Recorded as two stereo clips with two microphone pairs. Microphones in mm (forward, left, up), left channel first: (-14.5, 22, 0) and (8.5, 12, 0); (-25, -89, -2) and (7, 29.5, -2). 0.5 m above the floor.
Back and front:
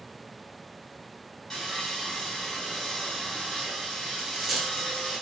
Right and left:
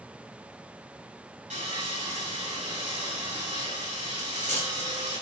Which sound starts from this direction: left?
Sawing, at 1.5 s.